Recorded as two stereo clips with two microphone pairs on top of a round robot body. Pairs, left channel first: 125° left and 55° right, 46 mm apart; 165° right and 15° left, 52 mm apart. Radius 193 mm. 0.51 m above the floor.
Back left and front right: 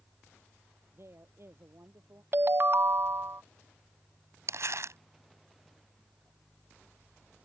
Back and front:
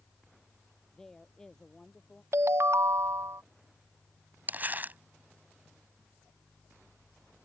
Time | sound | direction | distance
0.9 | a woman speaking | 80° right | ?
2.3 | a ringtone | 20° right | ?
4.5 | crumpling | 40° right | ?